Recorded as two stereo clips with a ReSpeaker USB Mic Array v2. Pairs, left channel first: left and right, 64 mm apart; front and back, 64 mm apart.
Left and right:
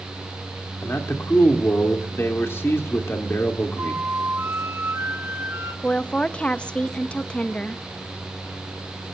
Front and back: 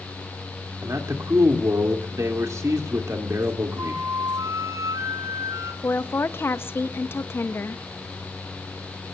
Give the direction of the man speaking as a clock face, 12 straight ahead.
7 o'clock.